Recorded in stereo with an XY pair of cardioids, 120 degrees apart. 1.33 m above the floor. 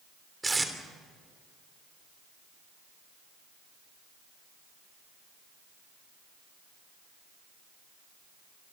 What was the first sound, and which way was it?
Tape being pulled, 15° right.